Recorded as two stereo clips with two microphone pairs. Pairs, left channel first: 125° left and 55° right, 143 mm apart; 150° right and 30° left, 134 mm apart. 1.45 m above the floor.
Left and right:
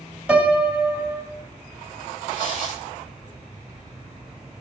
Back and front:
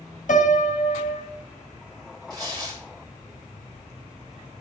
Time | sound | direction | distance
0.3 | a piano | 140° right | 2.5 m
2.3 | tearing paper | 90° left | 5.5 m